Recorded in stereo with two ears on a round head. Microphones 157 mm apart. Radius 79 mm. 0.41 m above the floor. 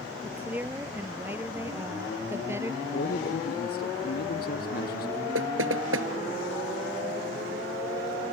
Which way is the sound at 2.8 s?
50° left (ahead or behind).